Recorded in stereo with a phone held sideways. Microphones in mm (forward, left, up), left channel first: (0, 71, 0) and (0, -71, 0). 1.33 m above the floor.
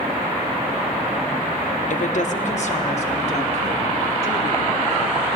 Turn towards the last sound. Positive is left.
turn(degrees=45)  # may be behind; listen again after turning